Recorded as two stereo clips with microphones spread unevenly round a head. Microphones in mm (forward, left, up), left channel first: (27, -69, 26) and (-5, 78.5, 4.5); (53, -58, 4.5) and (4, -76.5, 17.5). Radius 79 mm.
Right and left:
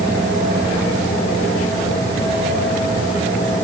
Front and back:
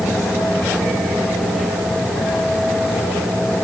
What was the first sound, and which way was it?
Only background noise.